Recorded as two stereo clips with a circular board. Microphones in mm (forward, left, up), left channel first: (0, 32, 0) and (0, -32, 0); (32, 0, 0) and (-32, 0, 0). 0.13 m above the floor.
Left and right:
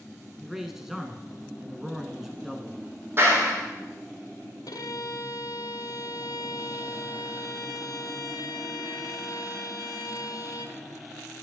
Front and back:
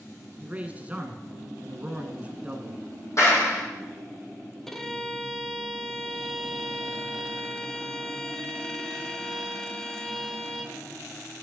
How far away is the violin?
About 0.7 m.